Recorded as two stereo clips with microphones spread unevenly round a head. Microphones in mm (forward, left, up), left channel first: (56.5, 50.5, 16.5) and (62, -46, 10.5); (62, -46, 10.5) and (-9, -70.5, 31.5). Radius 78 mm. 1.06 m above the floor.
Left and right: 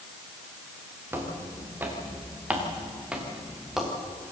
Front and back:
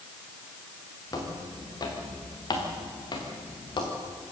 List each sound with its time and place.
1.1 s footsteps: 20° right, 5.5 m; by 3.9 s straight ahead, 4.5 m